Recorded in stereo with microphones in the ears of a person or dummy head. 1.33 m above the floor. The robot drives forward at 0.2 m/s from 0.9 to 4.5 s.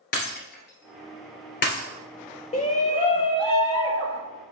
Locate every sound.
0.1 s breaking glass: 55° left (ahead or behind), 2 m
2.5 s a shout: 30° left (ahead or behind), 0.5 m; by 4.2 s 20° left (ahead or behind), 0.8 m